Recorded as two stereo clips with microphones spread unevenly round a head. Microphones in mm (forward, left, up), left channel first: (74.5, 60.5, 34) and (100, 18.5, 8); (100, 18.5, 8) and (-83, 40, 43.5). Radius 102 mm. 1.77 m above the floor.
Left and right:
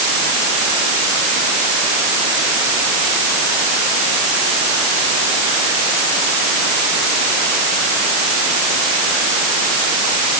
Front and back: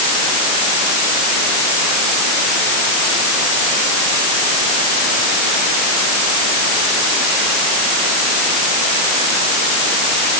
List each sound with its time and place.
Only background noise.